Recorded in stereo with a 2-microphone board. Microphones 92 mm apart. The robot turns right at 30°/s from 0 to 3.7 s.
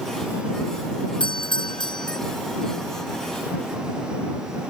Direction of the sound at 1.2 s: 65° left (ahead or behind).